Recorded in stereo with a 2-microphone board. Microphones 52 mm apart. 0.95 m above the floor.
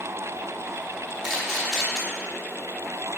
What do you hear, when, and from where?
1.2 s a camera shutter: 5° right (ahead or behind), 3 m